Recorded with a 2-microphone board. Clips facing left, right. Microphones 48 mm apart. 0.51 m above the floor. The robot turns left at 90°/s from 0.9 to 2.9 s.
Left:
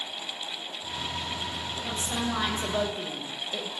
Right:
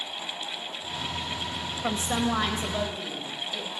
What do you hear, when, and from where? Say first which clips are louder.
1.8 s a woman speaking: right 5 dB; 105° right, 2.0 m; by 3.7 s 160° left, 2.0 m